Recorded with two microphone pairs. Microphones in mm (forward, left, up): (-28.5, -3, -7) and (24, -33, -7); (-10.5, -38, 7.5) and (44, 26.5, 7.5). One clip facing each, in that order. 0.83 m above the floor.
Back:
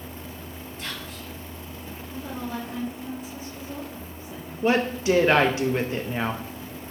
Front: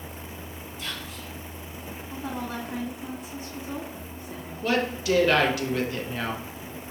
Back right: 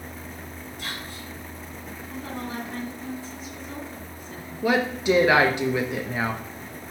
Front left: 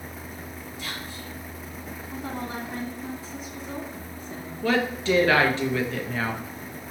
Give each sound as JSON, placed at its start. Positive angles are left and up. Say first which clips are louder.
{"t": 0.8, "sound": "whispering", "louder": "even, even", "azimuth_deg": -165, "distance_m": 3.0}
{"t": 2.1, "sound": "a woman speaking", "louder": "even, even", "azimuth_deg": -10, "distance_m": 2.0}
{"t": 4.6, "sound": "a woman speaking", "louder": "back 4 dB, back right 2 dB", "azimuth_deg": 175, "distance_m": 0.7}